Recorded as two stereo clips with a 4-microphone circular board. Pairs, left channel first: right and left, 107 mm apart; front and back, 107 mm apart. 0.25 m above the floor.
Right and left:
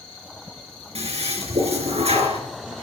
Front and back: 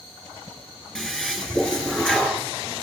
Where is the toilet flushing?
85° left, 3 m.